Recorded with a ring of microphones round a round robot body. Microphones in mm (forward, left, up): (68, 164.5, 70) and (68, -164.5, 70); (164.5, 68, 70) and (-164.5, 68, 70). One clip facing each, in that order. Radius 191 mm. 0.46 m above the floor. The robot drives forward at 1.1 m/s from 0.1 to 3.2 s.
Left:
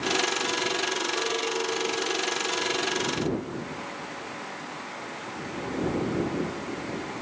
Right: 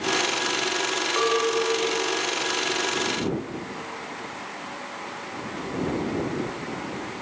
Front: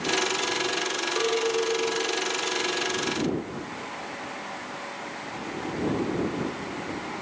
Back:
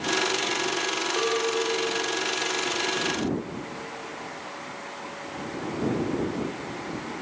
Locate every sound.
1.2 s a clink: 95° right; by 4.3 s 140° right